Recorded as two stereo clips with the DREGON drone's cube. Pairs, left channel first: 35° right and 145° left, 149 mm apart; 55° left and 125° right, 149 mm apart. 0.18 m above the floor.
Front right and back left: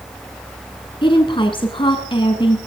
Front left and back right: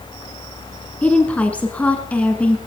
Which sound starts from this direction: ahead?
A woman speaking, at 1.0 s.